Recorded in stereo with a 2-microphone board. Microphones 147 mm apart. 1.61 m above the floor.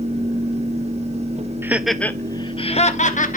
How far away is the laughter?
About 0.8 m.